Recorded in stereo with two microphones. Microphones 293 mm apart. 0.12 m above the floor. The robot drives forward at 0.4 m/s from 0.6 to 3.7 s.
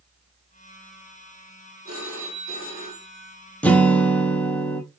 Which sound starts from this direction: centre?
A guitar, at 3.6 s.